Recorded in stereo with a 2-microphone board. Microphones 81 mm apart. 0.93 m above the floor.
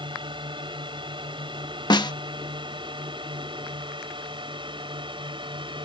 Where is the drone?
75° right (ahead or behind).